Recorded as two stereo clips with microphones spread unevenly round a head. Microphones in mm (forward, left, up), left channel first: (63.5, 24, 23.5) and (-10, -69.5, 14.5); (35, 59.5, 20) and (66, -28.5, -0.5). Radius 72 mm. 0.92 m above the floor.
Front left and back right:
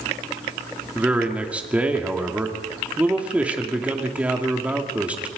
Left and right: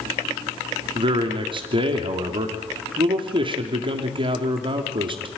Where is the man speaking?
50° right, 2.5 m.